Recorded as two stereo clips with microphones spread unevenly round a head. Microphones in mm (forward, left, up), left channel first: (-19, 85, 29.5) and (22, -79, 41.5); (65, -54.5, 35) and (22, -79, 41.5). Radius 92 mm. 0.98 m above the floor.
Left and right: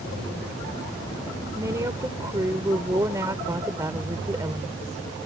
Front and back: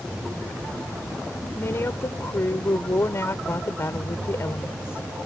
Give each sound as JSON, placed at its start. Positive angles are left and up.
{"t": 1.6, "sound": "a woman speaking", "azimuth_deg": -5}